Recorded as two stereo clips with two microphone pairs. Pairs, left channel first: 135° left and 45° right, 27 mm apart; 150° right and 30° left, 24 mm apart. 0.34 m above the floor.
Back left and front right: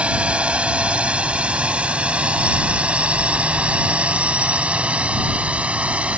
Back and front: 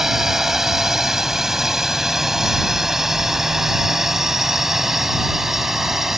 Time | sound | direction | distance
0.0 | a drone | 45° right | ?